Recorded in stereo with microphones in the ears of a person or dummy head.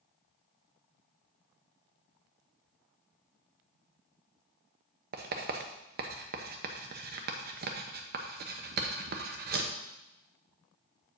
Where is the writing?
45° right (ahead or behind), 0.8 m.